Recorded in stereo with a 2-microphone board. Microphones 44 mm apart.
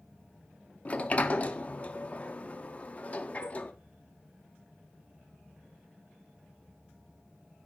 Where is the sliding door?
35° left (ahead or behind), 0.6 m.